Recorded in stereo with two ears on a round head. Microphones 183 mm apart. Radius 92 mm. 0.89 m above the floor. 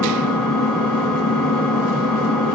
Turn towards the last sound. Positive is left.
turn(degrees=5)  # may be behind; listen again after turning